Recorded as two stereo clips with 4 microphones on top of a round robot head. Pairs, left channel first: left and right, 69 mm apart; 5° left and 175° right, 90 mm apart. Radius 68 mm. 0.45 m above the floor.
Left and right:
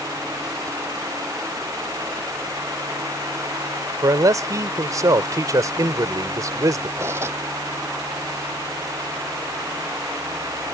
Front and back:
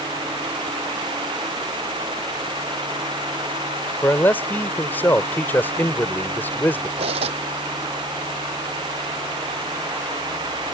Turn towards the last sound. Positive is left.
turn(degrees=-155)